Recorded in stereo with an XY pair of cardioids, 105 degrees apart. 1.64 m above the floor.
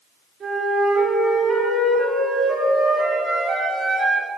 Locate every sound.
0.4 s a flute: 60° right, 3.5 m